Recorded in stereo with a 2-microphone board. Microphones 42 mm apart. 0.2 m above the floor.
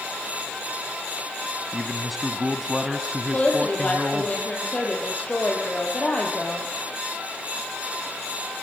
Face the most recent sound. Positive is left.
turn(degrees=30)  # may be behind; listen again after turning